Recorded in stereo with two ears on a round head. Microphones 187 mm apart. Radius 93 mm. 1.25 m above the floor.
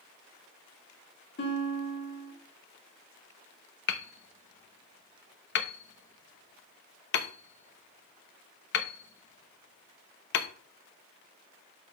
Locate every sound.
1.4 s a guitar: 55° left (ahead or behind), 2.5 m
3.9 s hammering: 50° left (ahead or behind), 1.0 m